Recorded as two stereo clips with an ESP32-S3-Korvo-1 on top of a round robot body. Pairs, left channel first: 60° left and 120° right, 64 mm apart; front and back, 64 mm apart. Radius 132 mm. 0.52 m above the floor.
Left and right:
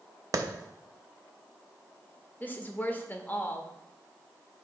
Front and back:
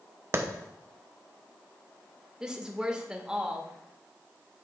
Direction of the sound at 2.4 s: 110° left.